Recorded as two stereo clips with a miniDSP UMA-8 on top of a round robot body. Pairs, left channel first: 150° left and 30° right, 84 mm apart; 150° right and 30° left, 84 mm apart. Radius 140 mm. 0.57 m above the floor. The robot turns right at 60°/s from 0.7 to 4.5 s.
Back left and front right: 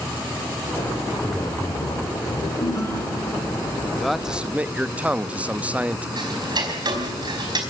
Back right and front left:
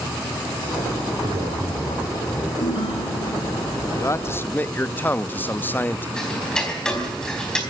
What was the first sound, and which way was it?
A man speaking, 60° left.